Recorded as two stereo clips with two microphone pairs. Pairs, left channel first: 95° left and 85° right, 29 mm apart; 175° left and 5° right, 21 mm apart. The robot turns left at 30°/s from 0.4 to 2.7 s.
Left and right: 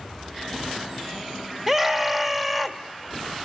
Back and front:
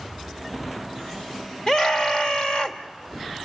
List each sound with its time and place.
1.7 s a scream: 145° right, 1.7 m; by 2.8 s 175° right, 1.7 m